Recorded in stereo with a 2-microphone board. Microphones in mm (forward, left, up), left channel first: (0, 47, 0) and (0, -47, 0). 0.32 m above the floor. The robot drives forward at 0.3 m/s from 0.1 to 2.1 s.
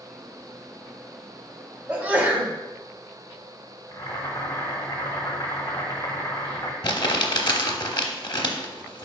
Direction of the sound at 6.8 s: 50° left (ahead or behind).